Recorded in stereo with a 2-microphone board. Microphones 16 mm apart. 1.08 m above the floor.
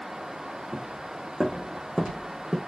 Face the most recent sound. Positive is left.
turn(degrees=-35)  # may be behind; listen again after turning